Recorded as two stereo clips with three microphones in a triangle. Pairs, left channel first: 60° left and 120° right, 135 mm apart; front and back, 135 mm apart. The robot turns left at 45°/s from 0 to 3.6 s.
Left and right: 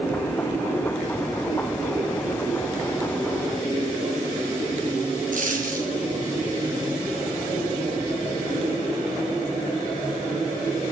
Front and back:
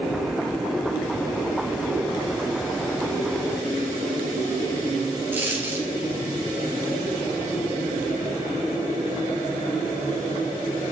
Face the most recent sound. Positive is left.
turn(degrees=-105)